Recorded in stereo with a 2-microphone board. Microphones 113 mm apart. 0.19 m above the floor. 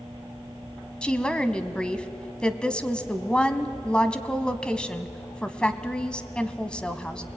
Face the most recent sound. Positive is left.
turn(degrees=10)  # may be behind; listen again after turning